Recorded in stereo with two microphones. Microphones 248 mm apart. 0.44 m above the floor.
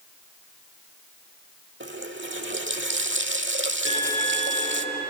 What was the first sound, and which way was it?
A running tap, 50° right (ahead or behind).